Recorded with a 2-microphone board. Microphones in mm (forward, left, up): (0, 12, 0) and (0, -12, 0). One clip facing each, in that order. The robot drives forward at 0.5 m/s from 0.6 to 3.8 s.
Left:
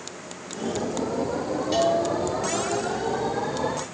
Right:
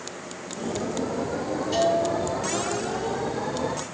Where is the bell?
30° left (ahead or behind), 5.5 m.